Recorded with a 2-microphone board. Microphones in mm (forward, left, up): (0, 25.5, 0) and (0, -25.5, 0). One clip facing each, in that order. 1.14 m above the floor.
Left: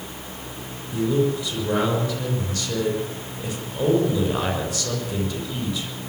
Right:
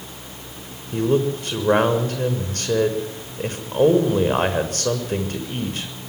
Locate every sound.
0.9 s a man speaking: 50° right (ahead or behind), 6 m